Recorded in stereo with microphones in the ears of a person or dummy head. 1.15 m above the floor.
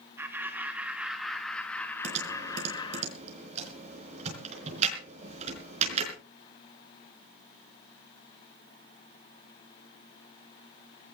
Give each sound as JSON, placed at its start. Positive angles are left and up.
{"t": 0.2, "sound": "laughter", "side_deg": -10, "distance_m": 3.0}
{"t": 2.0, "sound": "typing on a keyboard", "side_deg": -40, "distance_m": 4.0}